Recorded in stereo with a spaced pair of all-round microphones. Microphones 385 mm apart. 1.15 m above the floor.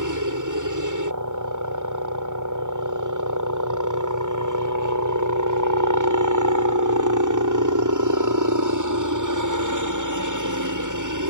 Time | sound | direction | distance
0.0 | a helicopter | 50° right (ahead or behind) | ?